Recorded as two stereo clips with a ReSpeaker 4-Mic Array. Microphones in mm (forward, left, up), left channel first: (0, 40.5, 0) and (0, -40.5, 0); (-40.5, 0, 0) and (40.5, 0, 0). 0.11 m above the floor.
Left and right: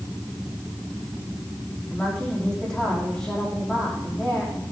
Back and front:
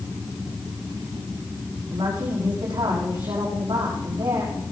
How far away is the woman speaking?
About 6 m.